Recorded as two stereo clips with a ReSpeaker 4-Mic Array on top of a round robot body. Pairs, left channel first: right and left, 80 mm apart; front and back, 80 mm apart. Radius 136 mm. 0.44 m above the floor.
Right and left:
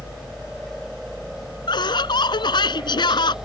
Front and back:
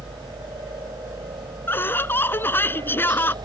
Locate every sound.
0.0 s a helicopter: 175° left; by 3.5 s 170° left
1.7 s laughter: 65° right